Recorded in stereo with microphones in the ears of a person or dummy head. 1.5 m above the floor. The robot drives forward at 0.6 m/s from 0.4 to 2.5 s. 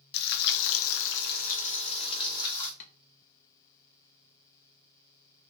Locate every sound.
0.1 s frying: 55° left (ahead or behind), 0.6 m; by 2.7 s 25° left (ahead or behind), 1.1 m
2.8 s tapping: 40° left (ahead or behind), 0.7 m